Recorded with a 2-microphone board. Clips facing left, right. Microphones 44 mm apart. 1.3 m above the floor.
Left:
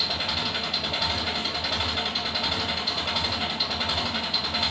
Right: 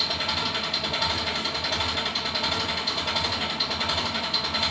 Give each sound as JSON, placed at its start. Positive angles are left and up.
{"t": 0.0, "sound": "an engine running", "side_deg": 5, "distance_m": 1.7}